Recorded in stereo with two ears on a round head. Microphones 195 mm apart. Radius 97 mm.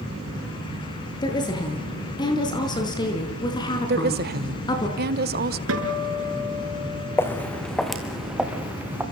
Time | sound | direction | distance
1.2 | a woman speaking | 20° left (ahead or behind) | 7 m
3.9 | a woman speaking | 45° right (ahead or behind) | 1.7 m
5.7 | a guitar | 65° right (ahead or behind) | 6 m
7.2 | footsteps | 10° left (ahead or behind) | 2 m